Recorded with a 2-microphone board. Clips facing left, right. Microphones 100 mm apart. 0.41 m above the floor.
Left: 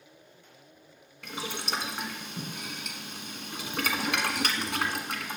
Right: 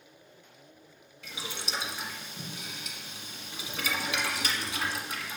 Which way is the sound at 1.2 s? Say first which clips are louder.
Left 4 dB; 65° left (ahead or behind).